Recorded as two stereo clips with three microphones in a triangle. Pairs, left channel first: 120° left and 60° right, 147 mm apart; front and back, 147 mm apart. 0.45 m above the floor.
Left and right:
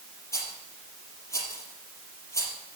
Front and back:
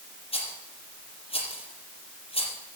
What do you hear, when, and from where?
0.3 s a rattle: 50° left, 3.5 m